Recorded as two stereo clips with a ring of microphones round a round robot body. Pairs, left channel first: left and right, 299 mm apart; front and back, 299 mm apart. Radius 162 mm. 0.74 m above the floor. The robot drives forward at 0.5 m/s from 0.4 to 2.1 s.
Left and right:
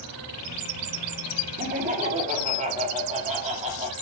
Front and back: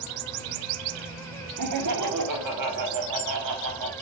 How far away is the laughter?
About 1.2 m.